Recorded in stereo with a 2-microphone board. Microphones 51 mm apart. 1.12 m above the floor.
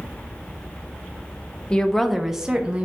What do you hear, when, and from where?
1.7 s a woman speaking: 20° left (ahead or behind), 1.0 m; by 2.9 s 25° right (ahead or behind), 1.5 m